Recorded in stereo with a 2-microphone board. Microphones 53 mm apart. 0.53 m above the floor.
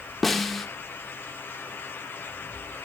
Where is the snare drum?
5° left (ahead or behind), 1.0 m.